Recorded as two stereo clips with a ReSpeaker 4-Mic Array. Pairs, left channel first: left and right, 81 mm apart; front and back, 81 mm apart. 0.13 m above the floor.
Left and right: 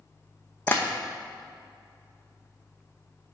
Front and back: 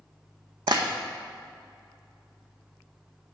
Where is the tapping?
155° left, 1.0 m.